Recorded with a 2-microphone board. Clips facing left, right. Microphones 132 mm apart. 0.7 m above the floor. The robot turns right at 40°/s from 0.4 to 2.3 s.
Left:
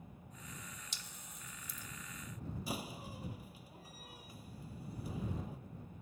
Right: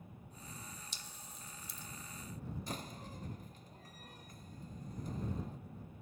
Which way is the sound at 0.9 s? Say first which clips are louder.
Right 1 dB; 75° left (ahead or behind).